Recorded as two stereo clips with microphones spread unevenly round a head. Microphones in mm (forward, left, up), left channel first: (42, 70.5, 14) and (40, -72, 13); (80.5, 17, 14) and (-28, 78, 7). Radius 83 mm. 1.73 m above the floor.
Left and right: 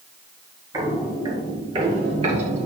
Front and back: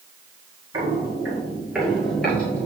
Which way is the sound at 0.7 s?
150° right.